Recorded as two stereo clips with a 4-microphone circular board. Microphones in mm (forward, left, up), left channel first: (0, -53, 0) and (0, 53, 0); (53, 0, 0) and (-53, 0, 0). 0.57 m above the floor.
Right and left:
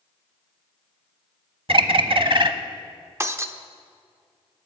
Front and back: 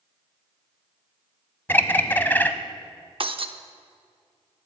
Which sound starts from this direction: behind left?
Breaking glass, at 3.2 s.